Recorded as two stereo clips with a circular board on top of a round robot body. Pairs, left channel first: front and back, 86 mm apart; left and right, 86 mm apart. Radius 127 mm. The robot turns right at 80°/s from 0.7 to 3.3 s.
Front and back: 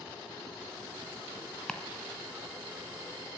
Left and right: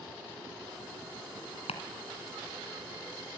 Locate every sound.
1.7 s chopping: 80° left, 2 m; by 3.4 s 150° right, 2 m